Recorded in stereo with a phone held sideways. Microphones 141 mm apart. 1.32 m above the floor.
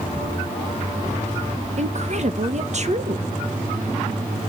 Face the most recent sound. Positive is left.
turn(degrees=-55)  # may be behind; listen again after turning